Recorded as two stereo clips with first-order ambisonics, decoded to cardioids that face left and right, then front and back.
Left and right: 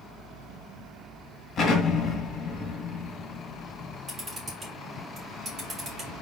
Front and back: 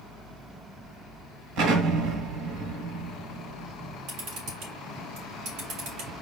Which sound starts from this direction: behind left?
An explosion, at 1.6 s.